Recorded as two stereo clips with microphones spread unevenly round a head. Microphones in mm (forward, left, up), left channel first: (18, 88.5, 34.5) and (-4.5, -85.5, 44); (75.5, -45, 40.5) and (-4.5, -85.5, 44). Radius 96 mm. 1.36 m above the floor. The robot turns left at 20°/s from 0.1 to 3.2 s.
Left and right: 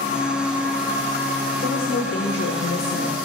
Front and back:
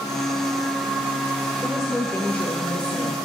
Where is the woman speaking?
115° left, 1.4 m; by 3.2 s 85° left, 1.4 m.